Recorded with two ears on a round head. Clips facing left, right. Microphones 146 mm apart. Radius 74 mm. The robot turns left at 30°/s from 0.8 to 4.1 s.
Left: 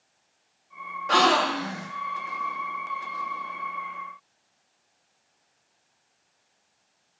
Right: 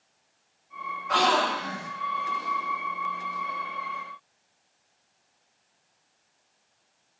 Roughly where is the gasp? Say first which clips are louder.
Left 2 dB; left.